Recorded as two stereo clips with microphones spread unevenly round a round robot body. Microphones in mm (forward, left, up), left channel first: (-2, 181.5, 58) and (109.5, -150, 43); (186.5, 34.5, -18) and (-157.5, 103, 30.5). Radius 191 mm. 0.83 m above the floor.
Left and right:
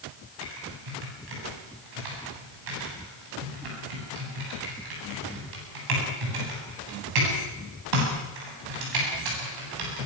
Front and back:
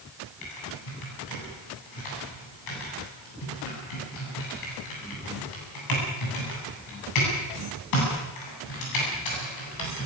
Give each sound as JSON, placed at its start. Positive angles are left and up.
{"t": 0.4, "sound": "typing on a keyboard", "azimuth_deg": -50, "distance_m": 8.0}